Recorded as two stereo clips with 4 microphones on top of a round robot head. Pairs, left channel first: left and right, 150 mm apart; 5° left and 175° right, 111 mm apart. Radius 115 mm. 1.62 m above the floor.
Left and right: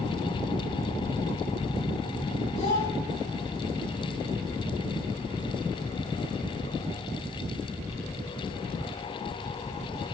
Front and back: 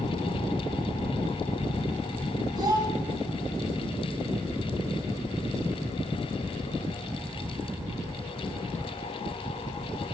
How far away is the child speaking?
About 4.5 m.